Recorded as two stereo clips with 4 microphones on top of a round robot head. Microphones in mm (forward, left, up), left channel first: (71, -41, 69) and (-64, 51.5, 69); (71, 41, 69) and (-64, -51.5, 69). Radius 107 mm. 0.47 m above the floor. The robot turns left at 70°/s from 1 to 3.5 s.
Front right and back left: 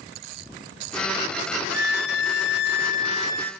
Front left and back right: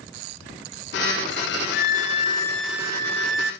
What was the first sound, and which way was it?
A violin, 10° left.